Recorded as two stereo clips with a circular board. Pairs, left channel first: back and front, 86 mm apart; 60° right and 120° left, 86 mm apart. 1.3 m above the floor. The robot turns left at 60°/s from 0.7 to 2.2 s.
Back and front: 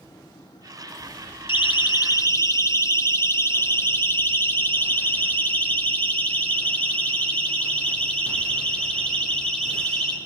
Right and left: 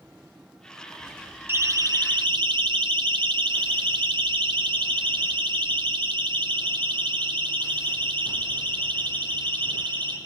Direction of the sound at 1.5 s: Straight behind.